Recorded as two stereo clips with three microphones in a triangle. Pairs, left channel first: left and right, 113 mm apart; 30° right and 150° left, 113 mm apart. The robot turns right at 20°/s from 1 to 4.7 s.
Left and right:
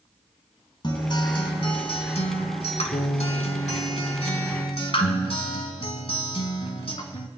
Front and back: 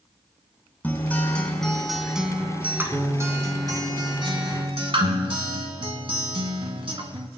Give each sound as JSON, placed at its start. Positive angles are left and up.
{"t": 0.8, "sound": "a guitar", "azimuth_deg": 45, "distance_m": 1.2}